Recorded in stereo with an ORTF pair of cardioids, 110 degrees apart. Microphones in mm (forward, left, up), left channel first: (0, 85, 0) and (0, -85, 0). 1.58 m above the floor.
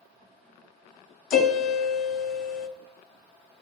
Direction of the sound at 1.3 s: 65° left.